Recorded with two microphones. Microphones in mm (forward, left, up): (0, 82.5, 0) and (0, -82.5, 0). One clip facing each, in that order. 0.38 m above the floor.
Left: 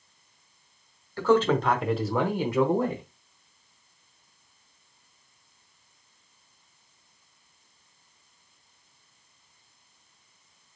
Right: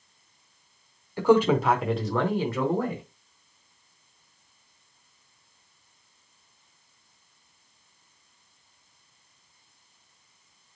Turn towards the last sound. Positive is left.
turn(degrees=25)  # may be behind; listen again after turning